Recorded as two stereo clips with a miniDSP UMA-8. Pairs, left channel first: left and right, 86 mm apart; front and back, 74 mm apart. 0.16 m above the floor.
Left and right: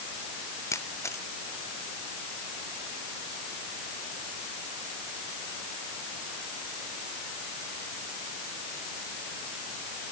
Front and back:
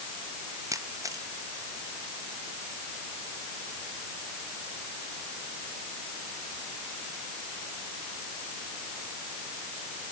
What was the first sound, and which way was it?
A camera shutter, 145° left.